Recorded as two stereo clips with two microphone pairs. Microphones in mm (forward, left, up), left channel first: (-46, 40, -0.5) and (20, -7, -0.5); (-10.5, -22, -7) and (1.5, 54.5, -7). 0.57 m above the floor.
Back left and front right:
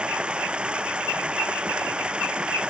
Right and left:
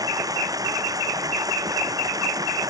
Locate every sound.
0.0 s running water: 40° left